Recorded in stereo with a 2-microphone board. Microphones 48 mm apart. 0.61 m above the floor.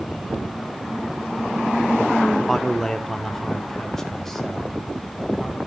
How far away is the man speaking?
About 0.7 m.